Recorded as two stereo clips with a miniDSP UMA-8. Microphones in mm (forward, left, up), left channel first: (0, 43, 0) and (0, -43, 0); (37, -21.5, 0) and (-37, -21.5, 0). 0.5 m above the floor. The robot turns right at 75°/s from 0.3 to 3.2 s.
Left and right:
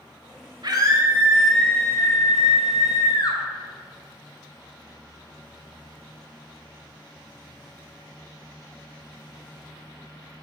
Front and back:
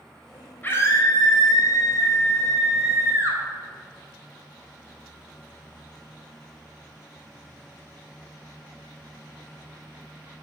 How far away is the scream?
About 2.5 m.